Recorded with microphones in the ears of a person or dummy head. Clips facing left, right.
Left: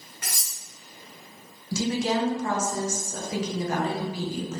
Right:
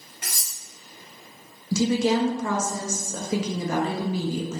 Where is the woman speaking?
70° right (ahead or behind), 0.5 m.